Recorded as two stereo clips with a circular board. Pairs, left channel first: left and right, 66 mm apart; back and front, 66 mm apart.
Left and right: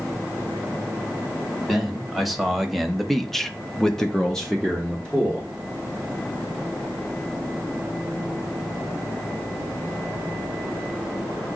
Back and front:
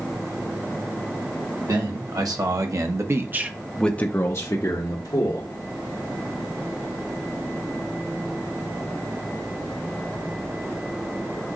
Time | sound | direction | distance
1.7 | a man speaking | straight ahead | 1.8 m